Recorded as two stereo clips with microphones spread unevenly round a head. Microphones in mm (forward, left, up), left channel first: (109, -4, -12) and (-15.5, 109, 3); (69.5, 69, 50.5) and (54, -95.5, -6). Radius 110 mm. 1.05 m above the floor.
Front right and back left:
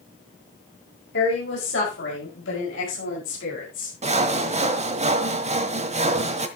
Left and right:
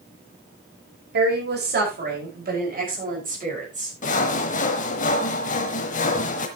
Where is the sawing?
100° left, 1.3 m.